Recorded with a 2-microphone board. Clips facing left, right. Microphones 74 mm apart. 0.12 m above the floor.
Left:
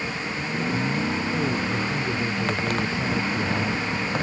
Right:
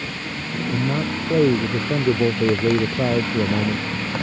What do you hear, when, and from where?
0.7 s a man speaking: 65° right (ahead or behind); by 4.2 s 45° right (ahead or behind)